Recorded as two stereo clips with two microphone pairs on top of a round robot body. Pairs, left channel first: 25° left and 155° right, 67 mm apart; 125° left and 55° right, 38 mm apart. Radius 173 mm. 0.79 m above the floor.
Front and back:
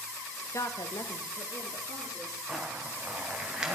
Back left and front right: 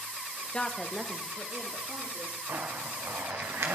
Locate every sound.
0.5 s a woman speaking: 70° left, 1.0 m; by 2.4 s 5° right, 3 m
2.5 s a zipper: 75° right, 0.7 m